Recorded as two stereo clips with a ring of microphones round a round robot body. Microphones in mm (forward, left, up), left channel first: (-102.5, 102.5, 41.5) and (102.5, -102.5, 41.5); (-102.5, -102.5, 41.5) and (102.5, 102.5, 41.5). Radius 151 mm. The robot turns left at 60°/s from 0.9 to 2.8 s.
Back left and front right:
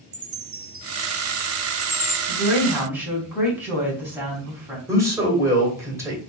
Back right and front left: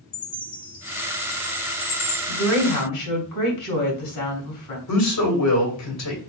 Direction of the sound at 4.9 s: 125° right.